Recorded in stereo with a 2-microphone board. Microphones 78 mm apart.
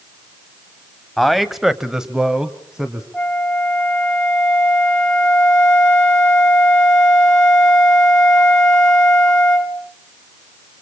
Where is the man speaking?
Centre (ahead or behind), 1.5 m; by 3.0 s 10° right (ahead or behind), 2 m.